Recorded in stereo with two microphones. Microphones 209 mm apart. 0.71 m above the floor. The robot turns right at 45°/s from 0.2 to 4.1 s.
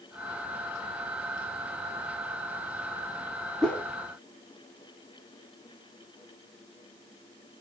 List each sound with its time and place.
3.6 s a whoosh: centre (ahead or behind), 1.5 m; by 3.9 s 10° left (ahead or behind), 1.5 m